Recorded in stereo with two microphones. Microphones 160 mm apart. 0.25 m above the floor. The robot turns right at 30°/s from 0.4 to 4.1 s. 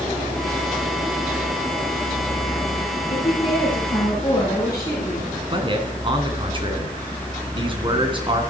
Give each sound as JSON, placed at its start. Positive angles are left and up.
{"t": 3.1, "sound": "a woman speaking", "azimuth_deg": 120, "distance_m": 3.0}
{"t": 5.5, "sound": "a man speaking", "side_deg": -35, "distance_m": 2.5}